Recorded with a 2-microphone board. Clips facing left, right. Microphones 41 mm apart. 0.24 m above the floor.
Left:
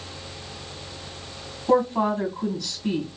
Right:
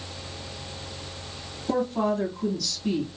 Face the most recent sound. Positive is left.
turn(degrees=30)  # may be behind; listen again after turning